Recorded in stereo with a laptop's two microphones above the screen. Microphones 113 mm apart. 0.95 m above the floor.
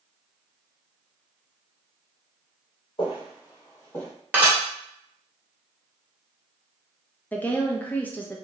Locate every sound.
3.0 s footsteps: 40° left (ahead or behind), 1.2 m; by 4.1 s 10° left (ahead or behind), 1.2 m
4.3 s dishes clattering: 15° right (ahead or behind), 1.2 m
7.3 s a woman speaking: 15° left (ahead or behind), 0.6 m